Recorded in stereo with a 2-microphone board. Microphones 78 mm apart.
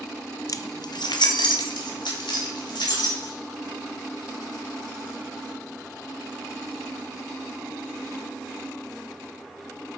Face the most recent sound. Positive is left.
turn(degrees=85)